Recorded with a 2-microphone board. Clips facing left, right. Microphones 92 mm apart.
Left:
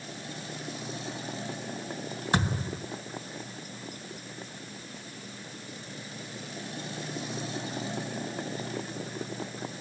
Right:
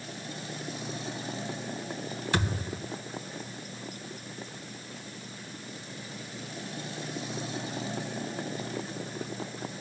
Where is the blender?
I don't hear a blender.